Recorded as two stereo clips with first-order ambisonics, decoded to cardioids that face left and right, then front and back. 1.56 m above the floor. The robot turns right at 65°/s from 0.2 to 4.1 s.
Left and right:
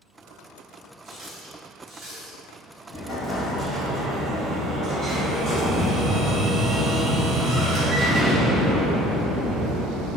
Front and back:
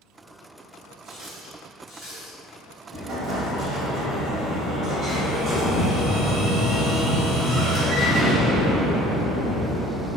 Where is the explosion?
145° left, 0.6 m; by 10.2 s 135° right, 0.6 m.